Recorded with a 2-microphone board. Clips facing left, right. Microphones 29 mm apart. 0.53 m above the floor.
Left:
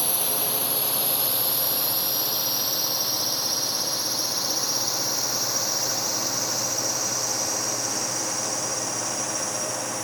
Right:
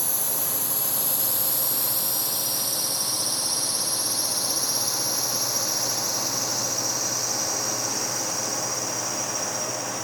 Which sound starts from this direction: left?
A drone, at 0.0 s.